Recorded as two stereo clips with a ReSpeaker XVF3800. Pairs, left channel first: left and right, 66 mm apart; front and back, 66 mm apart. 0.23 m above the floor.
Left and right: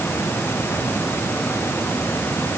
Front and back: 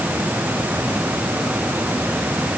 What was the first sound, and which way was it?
Only background noise.